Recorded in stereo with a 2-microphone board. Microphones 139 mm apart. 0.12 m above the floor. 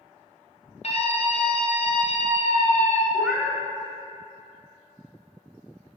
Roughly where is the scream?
Left.